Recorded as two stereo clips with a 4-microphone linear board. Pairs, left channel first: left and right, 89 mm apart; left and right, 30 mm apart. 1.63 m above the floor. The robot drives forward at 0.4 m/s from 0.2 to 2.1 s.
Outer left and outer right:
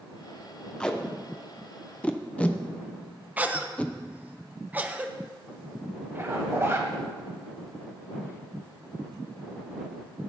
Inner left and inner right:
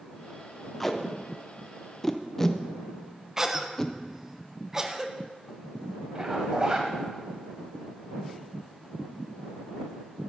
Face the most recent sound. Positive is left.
turn(degrees=-30)  # may be behind; listen again after turning